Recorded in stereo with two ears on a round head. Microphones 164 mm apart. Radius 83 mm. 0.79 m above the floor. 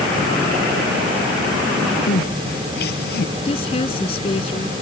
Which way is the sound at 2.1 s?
60° left (ahead or behind).